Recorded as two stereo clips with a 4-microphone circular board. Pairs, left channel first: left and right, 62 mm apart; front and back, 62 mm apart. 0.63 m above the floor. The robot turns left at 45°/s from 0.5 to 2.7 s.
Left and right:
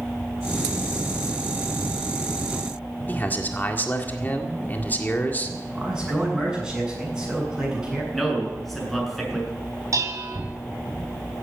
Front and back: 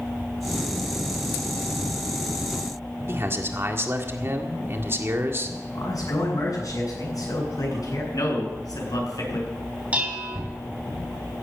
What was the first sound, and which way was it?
A man speaking, 145° left.